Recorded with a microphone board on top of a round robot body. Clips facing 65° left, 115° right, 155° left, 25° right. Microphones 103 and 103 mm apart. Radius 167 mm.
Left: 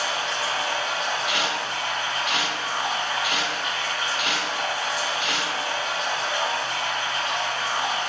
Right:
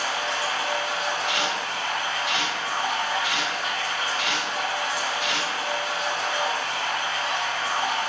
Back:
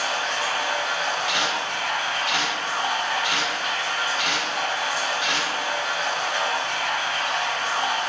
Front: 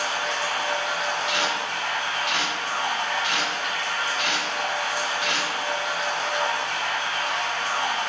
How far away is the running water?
About 1.1 m.